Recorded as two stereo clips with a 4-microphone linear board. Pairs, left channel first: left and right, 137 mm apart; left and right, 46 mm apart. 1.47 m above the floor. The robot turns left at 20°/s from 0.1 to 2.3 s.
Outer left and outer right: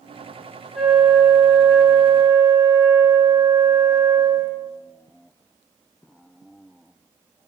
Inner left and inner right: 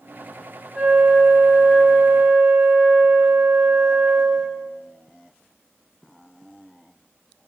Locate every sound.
0.7 s a flute: 5° right, 1.1 m; by 4.7 s 35° right, 1.1 m